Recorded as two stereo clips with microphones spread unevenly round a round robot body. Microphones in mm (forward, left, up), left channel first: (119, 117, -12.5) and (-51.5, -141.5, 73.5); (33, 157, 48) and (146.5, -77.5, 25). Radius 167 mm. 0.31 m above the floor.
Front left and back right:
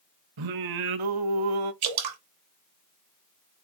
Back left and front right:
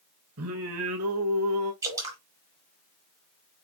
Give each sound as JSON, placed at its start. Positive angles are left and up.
{"t": 0.4, "sound": "singing", "azimuth_deg": -115, "distance_m": 0.5}
{"t": 1.8, "sound": "dripping", "azimuth_deg": -140, "distance_m": 0.9}